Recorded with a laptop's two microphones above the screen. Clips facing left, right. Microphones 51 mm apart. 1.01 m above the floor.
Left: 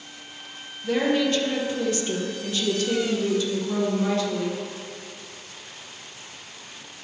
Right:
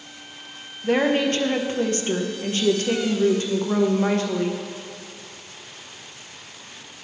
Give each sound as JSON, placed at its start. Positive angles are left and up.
{"t": 0.8, "sound": "a woman speaking", "side_deg": -40, "distance_m": 0.7}